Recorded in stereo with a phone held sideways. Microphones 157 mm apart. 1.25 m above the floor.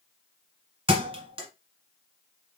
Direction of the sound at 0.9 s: 35° right (ahead or behind).